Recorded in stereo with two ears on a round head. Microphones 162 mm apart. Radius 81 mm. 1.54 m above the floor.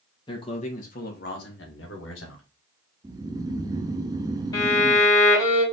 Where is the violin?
20° left (ahead or behind), 1.9 m.